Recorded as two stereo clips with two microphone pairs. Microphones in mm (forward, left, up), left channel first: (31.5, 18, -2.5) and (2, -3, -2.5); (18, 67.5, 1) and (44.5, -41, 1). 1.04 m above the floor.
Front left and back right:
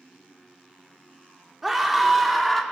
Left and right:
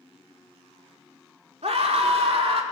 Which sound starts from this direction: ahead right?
A scream, at 1.6 s.